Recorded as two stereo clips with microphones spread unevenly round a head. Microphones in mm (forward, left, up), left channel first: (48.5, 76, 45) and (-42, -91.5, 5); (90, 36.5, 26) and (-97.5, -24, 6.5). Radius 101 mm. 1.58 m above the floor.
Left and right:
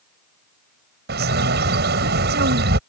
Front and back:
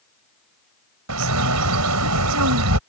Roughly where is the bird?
Behind.